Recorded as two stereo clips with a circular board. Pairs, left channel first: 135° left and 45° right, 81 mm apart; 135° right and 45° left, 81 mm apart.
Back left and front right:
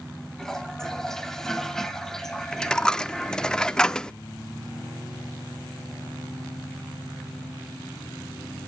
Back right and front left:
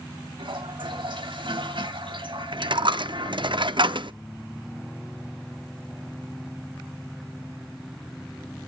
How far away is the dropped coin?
About 0.6 m.